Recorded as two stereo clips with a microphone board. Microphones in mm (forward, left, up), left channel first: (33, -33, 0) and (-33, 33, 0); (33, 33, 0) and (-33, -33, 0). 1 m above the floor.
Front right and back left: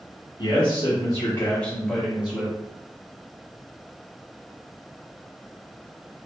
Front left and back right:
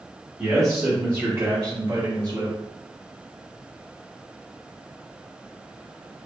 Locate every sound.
0.4 s a man speaking: 60° right, 1.1 m; by 2.5 s 160° right, 1.0 m